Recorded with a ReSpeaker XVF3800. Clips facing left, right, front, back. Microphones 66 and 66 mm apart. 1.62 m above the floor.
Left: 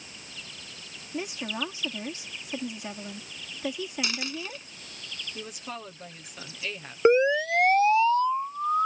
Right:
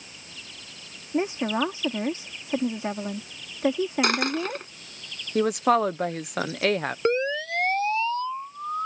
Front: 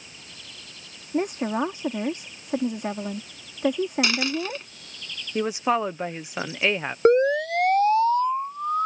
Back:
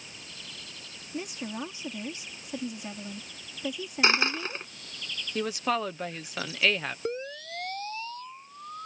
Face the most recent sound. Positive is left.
turn(degrees=20)